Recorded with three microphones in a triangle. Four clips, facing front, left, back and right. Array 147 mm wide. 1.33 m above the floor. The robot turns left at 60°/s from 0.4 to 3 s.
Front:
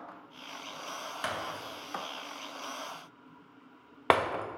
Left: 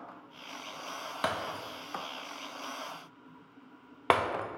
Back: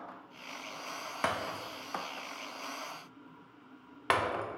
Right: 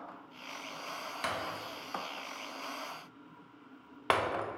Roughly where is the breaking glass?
Behind left.